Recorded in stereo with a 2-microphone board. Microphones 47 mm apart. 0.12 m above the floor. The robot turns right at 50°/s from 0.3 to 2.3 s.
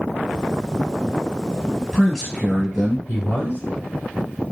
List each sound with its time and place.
1.8 s a man speaking: 20° left (ahead or behind), 1.6 m; by 3.0 s centre (ahead or behind), 1.6 m
3.1 s a man speaking: 35° left (ahead or behind), 1.5 m